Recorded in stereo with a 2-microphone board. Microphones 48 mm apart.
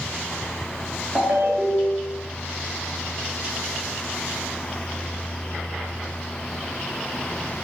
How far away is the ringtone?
About 1.0 m.